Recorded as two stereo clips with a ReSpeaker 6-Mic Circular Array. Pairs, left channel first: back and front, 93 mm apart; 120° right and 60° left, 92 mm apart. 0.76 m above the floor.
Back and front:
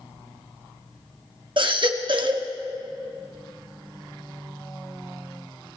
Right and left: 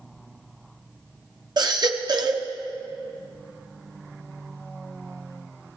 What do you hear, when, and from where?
1.6 s a baby crying: 25° left, 1.0 m